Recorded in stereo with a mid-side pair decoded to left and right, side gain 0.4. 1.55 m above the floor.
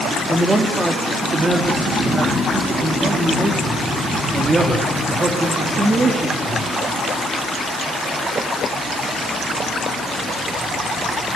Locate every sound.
0.3 s a man speaking: 35° right, 4.5 m